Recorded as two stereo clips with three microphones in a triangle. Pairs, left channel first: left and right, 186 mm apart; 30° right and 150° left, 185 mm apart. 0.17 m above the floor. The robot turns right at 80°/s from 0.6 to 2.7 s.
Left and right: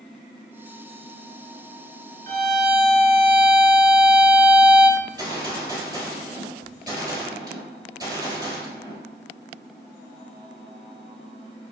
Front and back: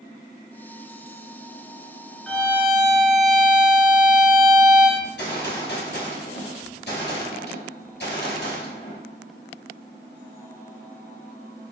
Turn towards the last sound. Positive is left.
turn(degrees=-25)